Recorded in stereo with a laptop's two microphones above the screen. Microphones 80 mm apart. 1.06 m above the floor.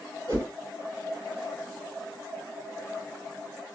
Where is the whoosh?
40° right (ahead or behind), 2 m.